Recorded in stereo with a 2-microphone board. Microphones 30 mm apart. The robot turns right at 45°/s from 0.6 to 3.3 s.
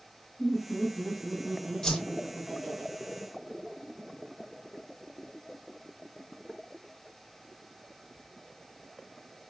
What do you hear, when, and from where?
0.4 s laughter: 85° left, 1.5 m; by 2.8 s 175° right, 1.5 m
1.8 s a whoosh: 25° left (ahead or behind), 0.9 m; by 2.0 s 15° left (ahead or behind), 0.9 m